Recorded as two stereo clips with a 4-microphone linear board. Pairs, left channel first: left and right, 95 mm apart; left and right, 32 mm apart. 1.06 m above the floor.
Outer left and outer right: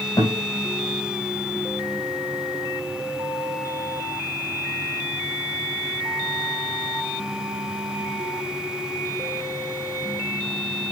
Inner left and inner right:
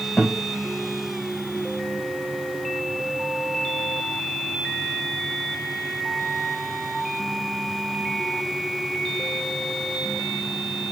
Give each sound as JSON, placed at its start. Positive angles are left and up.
{"t": 0.2, "sound": "a guitar", "side_deg": 40, "distance_m": 3.5}